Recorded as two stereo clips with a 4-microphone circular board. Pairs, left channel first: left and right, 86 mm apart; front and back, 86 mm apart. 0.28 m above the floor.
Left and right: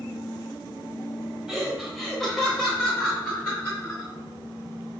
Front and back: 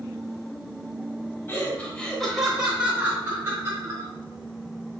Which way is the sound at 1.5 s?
10° right.